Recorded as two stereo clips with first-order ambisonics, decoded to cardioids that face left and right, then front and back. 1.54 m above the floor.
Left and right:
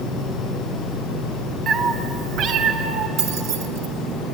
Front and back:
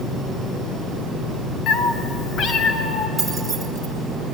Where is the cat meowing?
30° right, 0.9 m; by 3.1 s 55° right, 1.6 m.